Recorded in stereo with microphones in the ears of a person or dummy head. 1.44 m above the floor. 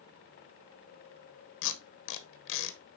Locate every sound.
1.6 s tape being pulled: 70° left (ahead or behind), 1.1 m